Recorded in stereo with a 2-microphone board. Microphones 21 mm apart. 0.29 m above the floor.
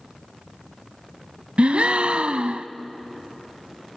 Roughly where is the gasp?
Right.